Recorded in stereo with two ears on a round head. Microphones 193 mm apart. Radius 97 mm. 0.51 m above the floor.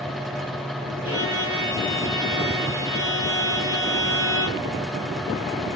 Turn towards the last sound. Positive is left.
turn(degrees=-70)  # may be behind; listen again after turning